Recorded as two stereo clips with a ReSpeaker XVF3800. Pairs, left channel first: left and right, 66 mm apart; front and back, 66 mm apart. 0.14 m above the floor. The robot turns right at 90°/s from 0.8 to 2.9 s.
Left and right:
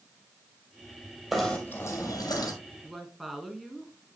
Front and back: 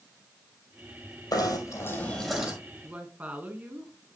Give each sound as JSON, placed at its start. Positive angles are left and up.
{"t": 1.3, "sound": "knocking", "azimuth_deg": -10, "distance_m": 3.0}
{"t": 2.8, "sound": "a woman speaking", "azimuth_deg": 180, "distance_m": 1.6}